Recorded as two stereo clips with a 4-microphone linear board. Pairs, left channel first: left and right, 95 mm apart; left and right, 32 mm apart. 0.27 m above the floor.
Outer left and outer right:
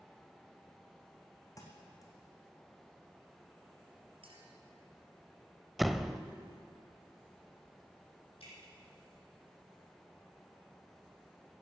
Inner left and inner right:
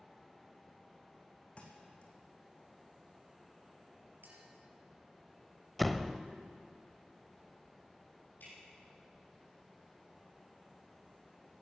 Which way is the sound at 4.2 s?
70° right (ahead or behind).